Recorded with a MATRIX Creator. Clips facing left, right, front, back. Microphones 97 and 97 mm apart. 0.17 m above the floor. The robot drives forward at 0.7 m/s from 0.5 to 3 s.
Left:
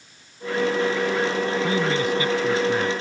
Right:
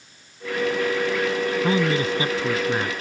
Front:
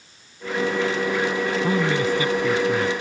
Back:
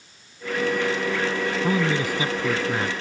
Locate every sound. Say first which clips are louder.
1.6 s a man speaking: right 1 dB, front 1 dB; 90° right; by 2.9 s 145° right